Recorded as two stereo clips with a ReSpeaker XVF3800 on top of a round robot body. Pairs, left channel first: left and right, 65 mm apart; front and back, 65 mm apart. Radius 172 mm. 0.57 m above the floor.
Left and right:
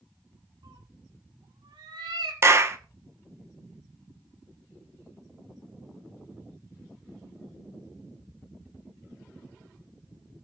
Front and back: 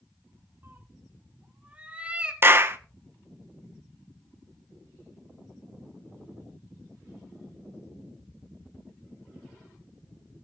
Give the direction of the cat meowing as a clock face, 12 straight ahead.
4 o'clock.